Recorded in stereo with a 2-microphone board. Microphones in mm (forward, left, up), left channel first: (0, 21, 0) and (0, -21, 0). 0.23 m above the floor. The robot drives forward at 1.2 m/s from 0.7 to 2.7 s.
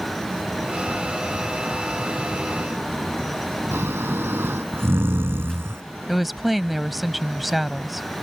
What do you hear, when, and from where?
3.7 s snoring: 60° right (ahead or behind)
6.1 s a woman speaking: 5° right (ahead or behind)